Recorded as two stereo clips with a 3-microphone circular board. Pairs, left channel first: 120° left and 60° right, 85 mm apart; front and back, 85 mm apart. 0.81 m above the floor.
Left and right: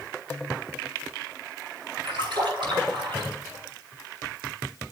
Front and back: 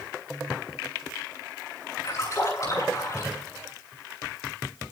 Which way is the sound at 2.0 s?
50° right.